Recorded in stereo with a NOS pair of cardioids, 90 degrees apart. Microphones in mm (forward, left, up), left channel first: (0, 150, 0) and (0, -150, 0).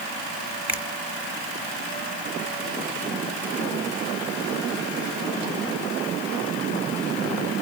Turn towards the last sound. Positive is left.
turn(degrees=-5)